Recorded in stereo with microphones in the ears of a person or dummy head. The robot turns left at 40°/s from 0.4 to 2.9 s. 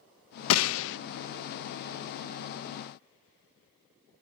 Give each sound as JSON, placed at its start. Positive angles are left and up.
{"t": 0.5, "sound": "a gunshot", "side_deg": 80, "distance_m": 0.6}